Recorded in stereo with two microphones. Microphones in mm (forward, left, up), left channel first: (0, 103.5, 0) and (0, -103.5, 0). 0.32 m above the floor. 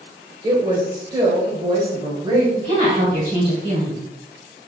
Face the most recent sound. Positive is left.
turn(degrees=-30)  # may be behind; listen again after turning